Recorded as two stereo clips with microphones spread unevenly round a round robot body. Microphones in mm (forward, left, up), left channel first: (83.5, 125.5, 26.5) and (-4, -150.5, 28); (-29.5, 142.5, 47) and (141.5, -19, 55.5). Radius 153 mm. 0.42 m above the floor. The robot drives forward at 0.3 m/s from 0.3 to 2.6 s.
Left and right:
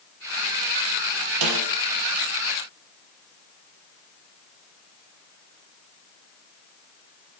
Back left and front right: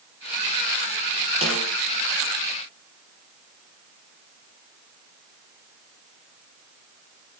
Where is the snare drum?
115° right, 5 m.